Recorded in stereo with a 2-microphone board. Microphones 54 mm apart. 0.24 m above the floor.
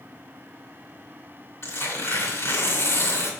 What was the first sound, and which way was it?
Tearing paper, 50° left (ahead or behind).